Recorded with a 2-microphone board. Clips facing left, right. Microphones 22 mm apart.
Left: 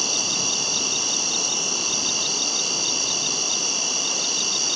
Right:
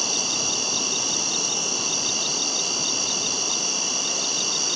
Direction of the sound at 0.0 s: 5° left (ahead or behind).